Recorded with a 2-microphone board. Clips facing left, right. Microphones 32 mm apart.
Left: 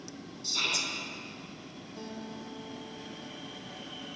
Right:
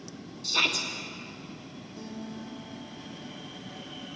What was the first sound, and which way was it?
A shout, 70° right (ahead or behind).